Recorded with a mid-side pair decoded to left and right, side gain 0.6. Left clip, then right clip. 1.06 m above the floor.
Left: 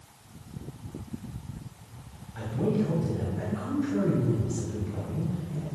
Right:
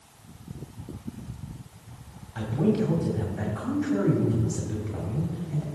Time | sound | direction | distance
2.4 | a man speaking | 40° right | 2 m